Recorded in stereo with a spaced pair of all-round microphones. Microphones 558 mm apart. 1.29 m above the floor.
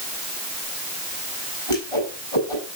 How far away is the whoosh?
About 6.5 m.